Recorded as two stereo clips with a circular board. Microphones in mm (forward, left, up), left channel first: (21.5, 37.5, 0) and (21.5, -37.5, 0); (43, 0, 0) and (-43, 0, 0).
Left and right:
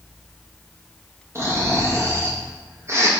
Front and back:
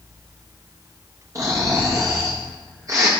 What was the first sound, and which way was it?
Snoring, 135° right.